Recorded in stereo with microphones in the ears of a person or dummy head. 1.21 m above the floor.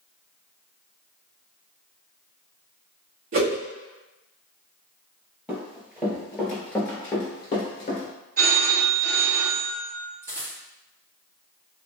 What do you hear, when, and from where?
3.3 s a whoosh: 45° right (ahead or behind), 0.8 m
5.5 s running footsteps: 15° right (ahead or behind), 1.8 m; by 8.1 s 30° left (ahead or behind), 1.3 m
8.4 s a phone ringing: 65° right (ahead or behind), 2.0 m
10.2 s a dropped coin: 15° right (ahead or behind), 0.9 m